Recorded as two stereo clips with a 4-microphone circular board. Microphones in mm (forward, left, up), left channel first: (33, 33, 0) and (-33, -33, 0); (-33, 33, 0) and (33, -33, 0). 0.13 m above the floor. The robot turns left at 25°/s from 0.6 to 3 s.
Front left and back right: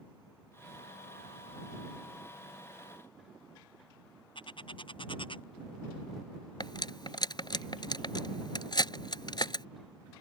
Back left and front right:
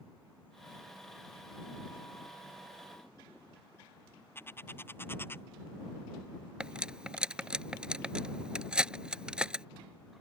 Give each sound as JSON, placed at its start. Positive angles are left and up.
{"t": 4.3, "sound": "a bird", "azimuth_deg": 70}
{"t": 6.6, "sound": "cutlery clinking", "azimuth_deg": 35}